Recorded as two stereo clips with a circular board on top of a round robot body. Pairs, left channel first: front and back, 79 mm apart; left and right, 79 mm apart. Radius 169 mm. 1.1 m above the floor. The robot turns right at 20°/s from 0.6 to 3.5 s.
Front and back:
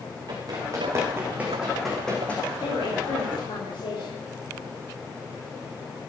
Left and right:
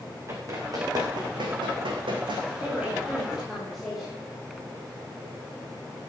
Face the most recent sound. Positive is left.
turn(degrees=0)